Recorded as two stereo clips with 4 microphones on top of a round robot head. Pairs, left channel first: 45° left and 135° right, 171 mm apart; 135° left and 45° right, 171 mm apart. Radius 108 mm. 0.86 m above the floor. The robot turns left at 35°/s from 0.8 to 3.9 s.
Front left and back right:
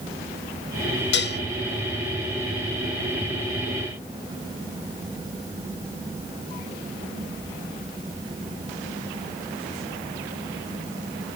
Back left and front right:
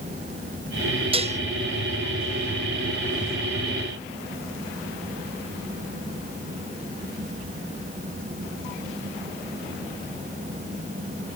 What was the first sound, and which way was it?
Dishes clattering, 15° left.